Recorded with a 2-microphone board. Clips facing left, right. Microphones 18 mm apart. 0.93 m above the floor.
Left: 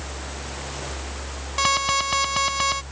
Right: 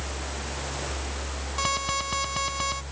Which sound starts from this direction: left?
An alarm, at 1.6 s.